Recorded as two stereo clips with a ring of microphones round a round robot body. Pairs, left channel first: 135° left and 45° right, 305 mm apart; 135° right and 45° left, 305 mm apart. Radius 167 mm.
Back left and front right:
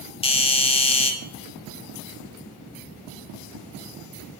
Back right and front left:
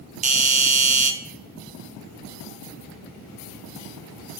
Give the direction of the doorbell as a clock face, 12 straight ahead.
9 o'clock.